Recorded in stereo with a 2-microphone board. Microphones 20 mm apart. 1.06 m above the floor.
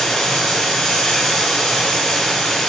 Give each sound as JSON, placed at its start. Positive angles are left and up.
{"t": 0.0, "sound": "running water", "side_deg": 50, "distance_m": 5.0}